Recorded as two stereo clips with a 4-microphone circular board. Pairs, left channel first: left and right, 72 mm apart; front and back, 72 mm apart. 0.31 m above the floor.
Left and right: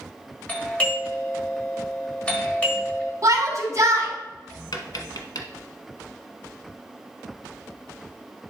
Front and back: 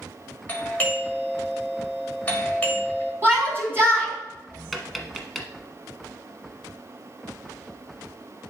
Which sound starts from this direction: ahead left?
A doorbell, at 0.5 s.